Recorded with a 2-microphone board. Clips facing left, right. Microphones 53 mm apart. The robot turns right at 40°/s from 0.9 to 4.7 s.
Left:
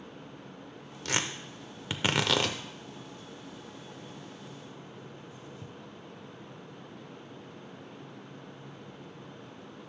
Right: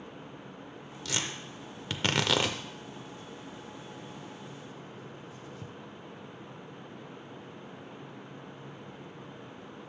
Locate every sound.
1.1 s tearing paper: 50° left (ahead or behind), 0.6 m; by 5.7 s 80° right, 0.6 m